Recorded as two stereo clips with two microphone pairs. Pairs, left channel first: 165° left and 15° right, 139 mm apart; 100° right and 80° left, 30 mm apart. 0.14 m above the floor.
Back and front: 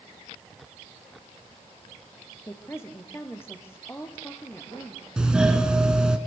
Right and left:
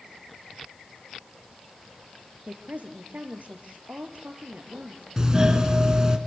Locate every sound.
2.5 s a woman speaking: 90° left, 3.5 m
5.2 s a doorbell: 60° left, 2.5 m